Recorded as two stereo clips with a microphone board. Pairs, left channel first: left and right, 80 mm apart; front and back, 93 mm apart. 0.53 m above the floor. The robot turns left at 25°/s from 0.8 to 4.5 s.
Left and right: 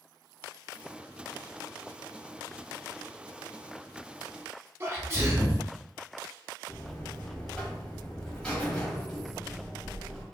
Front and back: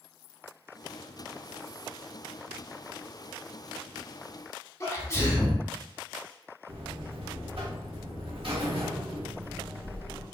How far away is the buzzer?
About 0.8 m.